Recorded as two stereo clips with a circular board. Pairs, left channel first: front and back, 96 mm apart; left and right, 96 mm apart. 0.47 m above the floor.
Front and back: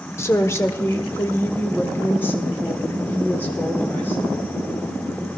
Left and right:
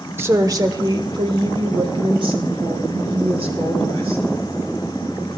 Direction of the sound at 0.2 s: 40° right.